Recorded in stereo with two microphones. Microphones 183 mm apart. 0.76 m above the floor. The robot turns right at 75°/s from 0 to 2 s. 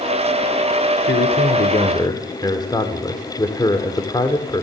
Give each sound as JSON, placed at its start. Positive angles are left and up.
{"t": 1.0, "sound": "a man speaking", "azimuth_deg": 85, "distance_m": 2.5}